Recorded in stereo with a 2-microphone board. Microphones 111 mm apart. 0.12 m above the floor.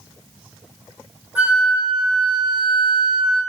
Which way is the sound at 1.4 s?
15° right (ahead or behind).